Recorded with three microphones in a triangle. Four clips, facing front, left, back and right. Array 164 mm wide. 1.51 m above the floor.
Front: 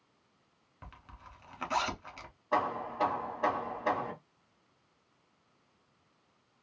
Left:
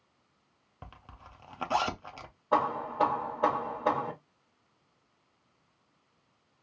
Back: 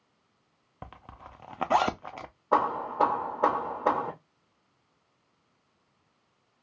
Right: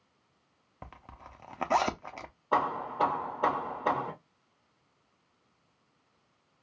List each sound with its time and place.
0.8 s a zipper: 160° right, 0.5 m
2.5 s hammering: straight behind, 1.1 m